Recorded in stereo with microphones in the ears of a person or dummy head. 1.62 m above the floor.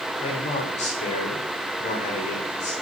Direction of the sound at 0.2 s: 35° left (ahead or behind).